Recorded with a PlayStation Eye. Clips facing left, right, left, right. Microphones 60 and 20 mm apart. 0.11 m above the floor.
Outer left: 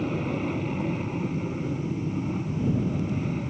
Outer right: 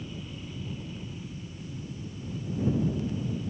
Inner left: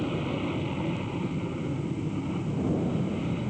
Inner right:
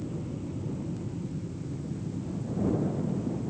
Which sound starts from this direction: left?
An aircraft, at 0.0 s.